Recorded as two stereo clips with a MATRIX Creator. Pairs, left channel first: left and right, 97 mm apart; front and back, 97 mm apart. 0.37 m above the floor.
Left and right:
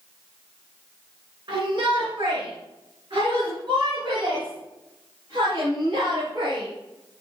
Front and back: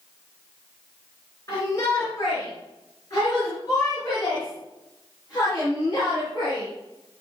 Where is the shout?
50° right, 5 m.